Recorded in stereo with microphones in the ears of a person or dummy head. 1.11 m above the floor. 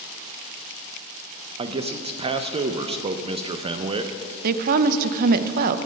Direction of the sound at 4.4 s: 45° right (ahead or behind).